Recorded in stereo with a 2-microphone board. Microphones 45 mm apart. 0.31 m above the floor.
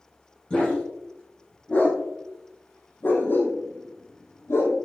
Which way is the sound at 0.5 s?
20° left (ahead or behind).